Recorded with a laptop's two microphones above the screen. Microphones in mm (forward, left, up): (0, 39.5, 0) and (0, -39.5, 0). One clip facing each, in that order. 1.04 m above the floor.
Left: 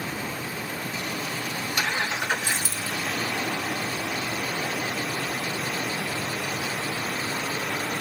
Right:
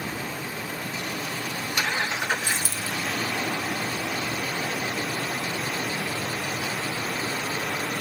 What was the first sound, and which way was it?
A dropped coin, 50° left (ahead or behind).